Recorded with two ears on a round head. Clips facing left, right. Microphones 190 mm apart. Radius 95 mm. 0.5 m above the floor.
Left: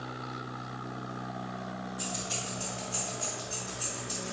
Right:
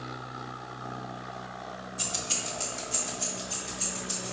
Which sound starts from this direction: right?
Keys jangling, at 2.0 s.